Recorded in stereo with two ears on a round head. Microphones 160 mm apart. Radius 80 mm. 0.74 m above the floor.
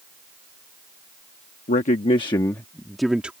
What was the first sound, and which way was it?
A man speaking, 45° left (ahead or behind).